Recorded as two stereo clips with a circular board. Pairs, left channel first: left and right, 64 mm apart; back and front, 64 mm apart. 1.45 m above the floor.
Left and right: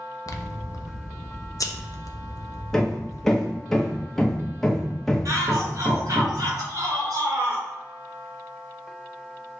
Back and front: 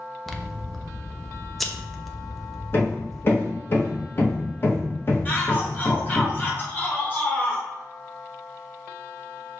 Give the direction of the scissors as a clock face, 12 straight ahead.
9 o'clock.